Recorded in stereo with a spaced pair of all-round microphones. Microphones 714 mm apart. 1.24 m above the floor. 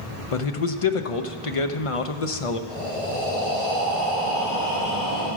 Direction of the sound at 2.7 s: Centre (ahead or behind).